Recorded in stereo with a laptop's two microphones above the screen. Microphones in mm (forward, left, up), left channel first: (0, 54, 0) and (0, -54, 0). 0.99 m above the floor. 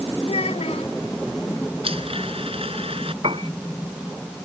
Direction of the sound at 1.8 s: 60° right (ahead or behind).